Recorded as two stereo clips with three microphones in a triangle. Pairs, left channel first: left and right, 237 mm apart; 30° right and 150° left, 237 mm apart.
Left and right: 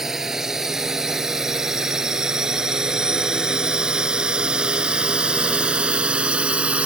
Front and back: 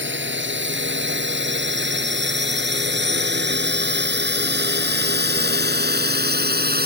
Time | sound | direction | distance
0.0 | a drone | straight behind | ?